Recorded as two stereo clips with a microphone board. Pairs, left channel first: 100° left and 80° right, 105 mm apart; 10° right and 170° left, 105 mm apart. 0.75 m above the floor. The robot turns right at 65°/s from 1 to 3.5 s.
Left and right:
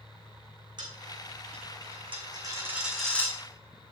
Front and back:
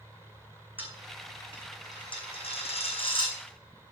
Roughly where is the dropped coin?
Behind right.